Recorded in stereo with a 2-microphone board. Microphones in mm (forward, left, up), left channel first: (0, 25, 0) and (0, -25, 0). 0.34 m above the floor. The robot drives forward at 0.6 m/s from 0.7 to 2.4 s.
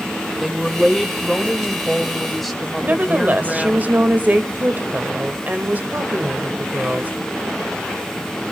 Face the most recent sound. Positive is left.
turn(degrees=-35)  # may be behind; listen again after turning